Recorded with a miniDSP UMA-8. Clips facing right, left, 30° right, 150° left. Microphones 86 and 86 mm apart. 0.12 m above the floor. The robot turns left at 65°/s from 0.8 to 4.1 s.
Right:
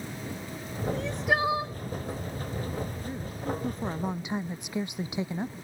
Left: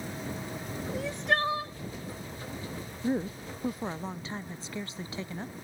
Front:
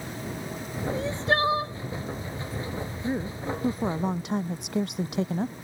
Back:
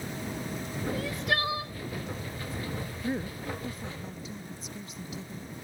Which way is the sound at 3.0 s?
55° left.